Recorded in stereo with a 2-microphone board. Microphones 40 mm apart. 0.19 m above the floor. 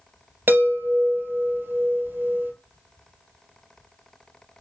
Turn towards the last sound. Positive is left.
turn(degrees=-60)  # may be behind; listen again after turning